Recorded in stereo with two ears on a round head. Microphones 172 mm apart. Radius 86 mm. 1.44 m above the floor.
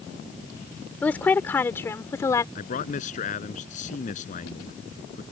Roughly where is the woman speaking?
Centre.